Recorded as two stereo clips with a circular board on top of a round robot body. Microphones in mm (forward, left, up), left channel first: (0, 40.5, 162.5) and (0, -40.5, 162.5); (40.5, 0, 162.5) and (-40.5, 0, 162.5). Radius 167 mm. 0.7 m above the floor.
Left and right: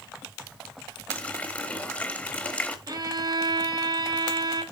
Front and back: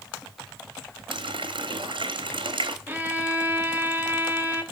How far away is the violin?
About 1.5 m.